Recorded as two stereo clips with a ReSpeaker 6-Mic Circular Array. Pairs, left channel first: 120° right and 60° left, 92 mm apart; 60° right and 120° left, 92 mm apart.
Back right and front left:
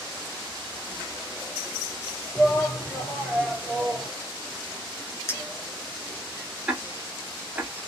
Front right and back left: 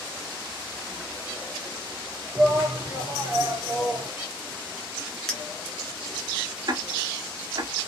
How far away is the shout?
About 2.5 m.